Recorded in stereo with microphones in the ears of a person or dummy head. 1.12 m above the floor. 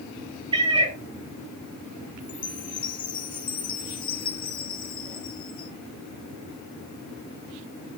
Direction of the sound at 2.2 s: 30° left (ahead or behind).